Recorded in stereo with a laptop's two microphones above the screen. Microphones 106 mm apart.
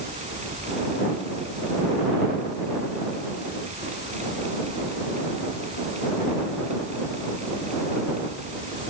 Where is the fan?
85° right.